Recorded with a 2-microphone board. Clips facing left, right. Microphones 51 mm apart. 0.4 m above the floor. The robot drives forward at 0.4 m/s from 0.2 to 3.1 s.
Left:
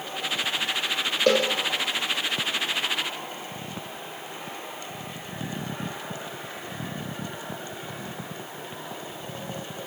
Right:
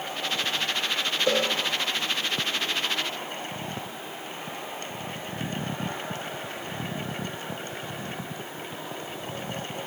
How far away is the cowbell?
About 5 m.